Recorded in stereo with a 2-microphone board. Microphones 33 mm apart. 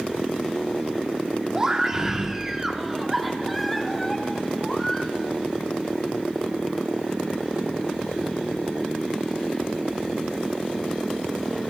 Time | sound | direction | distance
1.6 | a scream | 20° right (ahead or behind) | 4.5 m